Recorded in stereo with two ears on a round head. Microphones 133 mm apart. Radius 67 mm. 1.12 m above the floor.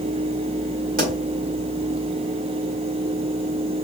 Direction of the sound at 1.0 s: 60° right (ahead or behind).